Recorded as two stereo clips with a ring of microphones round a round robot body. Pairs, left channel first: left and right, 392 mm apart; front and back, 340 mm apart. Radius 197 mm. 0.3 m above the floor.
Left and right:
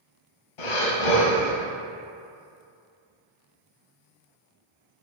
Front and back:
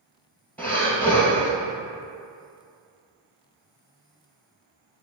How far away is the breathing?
About 2.0 m.